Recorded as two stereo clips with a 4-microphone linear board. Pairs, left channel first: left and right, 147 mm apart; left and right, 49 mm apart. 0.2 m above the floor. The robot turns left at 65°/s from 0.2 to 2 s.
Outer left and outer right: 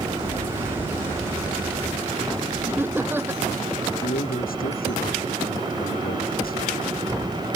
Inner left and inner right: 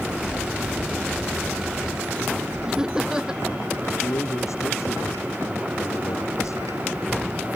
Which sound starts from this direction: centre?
Laughter, at 2.7 s.